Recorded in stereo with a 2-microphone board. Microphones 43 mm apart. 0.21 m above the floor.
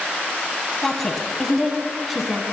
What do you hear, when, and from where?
0.8 s a woman speaking: 5° left (ahead or behind), 1.2 m; by 2.4 s 5° right (ahead or behind), 1.7 m